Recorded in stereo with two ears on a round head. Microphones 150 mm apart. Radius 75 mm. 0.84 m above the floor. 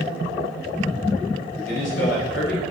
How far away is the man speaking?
About 3 m.